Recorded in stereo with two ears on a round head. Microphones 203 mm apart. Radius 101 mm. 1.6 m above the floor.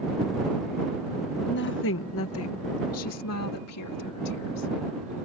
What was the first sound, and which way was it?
A woman speaking, 45° left (ahead or behind).